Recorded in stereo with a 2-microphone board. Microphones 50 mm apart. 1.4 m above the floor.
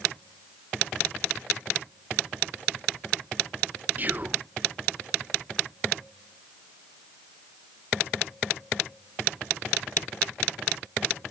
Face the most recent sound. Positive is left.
turn(degrees=-35)  # may be behind; listen again after turning